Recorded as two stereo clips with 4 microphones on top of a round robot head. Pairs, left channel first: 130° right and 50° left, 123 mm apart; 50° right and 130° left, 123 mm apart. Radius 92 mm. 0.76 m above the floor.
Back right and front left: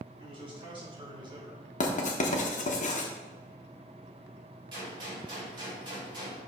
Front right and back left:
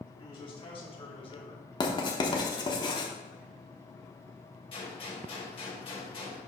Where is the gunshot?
5° right, 3 m.